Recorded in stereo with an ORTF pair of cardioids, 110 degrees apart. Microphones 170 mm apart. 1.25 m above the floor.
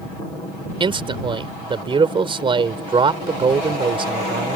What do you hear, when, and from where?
0.8 s a man speaking: 30° right